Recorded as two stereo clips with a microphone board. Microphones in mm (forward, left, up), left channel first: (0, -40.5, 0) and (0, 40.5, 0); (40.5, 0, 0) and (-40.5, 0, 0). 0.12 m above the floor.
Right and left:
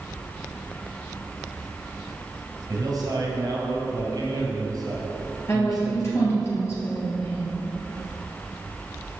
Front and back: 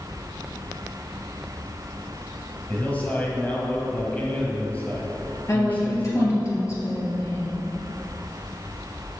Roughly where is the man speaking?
Left.